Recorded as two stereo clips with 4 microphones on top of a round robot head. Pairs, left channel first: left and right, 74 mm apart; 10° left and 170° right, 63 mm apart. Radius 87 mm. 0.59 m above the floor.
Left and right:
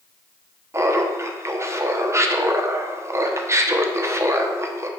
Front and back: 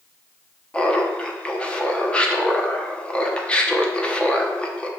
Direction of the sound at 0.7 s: 60° right.